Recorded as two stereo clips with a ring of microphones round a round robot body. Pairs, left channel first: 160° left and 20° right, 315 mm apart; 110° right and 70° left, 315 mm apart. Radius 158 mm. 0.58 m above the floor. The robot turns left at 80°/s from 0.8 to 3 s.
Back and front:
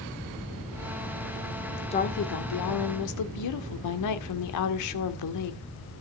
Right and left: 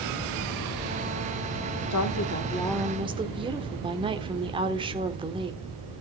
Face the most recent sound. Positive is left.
turn(degrees=140)